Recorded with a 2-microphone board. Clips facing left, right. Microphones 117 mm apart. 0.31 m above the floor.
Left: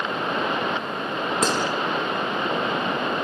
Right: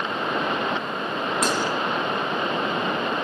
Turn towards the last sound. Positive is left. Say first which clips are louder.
# left 2 dB
turn(degrees=30)  # may be behind; listen again after turning